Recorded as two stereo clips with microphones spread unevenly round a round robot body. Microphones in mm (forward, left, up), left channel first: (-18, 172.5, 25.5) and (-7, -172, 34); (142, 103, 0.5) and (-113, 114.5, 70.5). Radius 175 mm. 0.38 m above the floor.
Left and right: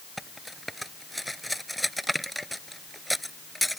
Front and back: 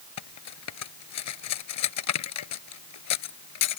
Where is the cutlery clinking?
Straight ahead.